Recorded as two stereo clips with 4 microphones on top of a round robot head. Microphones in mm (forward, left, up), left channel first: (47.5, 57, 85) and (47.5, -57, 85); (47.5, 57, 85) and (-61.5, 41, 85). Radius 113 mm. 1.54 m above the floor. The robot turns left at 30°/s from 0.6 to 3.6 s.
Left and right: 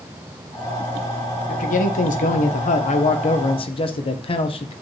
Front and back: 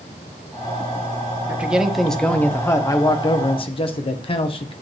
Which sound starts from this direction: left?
A man speaking, at 1.5 s.